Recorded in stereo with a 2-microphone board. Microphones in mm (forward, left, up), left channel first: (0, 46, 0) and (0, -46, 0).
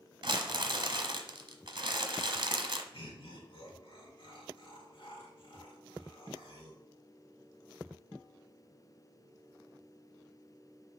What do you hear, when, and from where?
0.2 s crumpling: 55° right (ahead or behind), 0.9 m
2.9 s laughter: 70° left (ahead or behind), 4 m